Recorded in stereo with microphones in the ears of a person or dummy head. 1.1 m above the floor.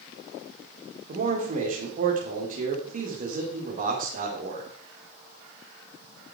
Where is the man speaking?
40° right (ahead or behind), 2.5 m.